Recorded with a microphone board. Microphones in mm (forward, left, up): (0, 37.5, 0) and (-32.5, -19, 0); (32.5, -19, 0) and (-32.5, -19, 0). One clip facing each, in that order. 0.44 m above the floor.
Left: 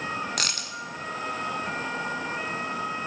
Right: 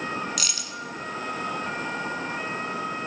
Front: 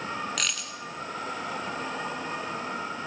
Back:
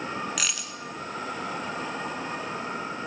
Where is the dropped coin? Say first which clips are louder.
Left 2 dB, even; 95° left, 0.6 m.